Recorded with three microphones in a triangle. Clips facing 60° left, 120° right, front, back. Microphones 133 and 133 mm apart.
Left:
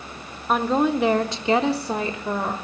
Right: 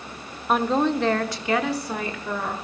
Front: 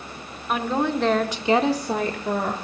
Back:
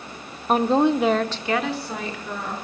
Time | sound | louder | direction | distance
0.5 | a woman speaking | left 1 dB, back 5 dB | 150° left | 0.9 m